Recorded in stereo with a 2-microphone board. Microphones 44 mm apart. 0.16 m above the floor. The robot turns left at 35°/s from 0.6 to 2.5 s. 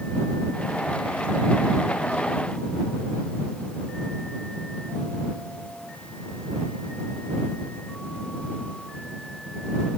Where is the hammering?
No hammering in this recording.